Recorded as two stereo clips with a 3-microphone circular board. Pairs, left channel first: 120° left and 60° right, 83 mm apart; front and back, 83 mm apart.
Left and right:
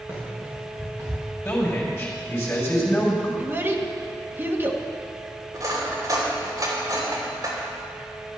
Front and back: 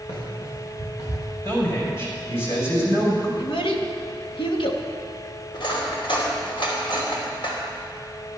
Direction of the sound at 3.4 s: 5° left.